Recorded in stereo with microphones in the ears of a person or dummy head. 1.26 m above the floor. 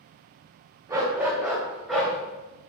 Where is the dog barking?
15° right (ahead or behind), 2.5 m; by 2.1 s centre (ahead or behind), 2.5 m.